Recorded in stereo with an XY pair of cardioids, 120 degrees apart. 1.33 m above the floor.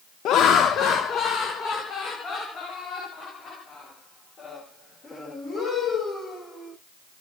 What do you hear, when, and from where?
0.2 s laughter: 70° left, 0.6 m; by 6.7 s 45° left, 5.5 m